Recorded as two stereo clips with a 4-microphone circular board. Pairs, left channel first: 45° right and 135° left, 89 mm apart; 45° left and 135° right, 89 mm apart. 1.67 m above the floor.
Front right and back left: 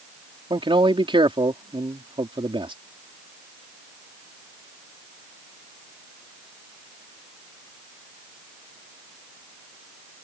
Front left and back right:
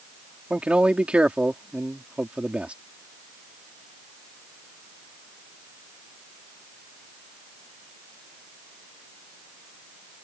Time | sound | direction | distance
0.5 | a man speaking | 150° left | ?